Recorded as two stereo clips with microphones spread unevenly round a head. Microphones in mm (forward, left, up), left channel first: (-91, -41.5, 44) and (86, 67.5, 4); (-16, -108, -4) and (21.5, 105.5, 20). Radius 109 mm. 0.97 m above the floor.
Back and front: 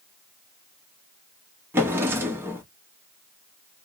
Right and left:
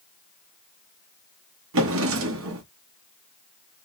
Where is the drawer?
110° left, 0.8 m.